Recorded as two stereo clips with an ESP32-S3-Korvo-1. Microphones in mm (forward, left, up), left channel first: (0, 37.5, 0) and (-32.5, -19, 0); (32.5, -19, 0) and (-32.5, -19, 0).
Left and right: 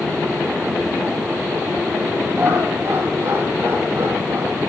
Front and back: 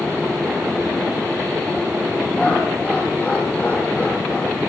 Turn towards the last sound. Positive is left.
turn(degrees=-80)